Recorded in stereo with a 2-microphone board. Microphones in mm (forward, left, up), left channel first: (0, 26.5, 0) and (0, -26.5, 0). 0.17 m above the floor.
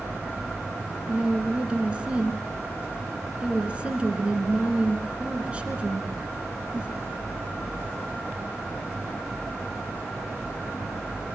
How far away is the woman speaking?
About 2.5 m.